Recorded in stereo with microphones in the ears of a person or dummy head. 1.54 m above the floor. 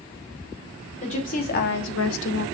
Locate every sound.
1.0 s a woman speaking: 35° left (ahead or behind), 2 m; by 2.5 s 50° left (ahead or behind), 1.0 m